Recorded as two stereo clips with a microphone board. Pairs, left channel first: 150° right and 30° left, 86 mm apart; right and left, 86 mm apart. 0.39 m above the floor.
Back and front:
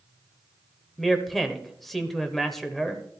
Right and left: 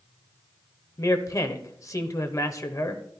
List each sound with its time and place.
1.0 s a man speaking: 60° right, 1.1 m